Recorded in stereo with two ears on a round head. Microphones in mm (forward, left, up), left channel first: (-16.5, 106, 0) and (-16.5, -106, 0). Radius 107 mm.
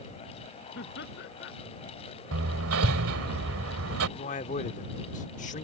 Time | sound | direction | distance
0.8 | laughter | 45° left (ahead or behind) | ?
2.3 | hammering | 65° right (ahead or behind) | ?
4.2 | a man speaking | 35° left (ahead or behind) | ?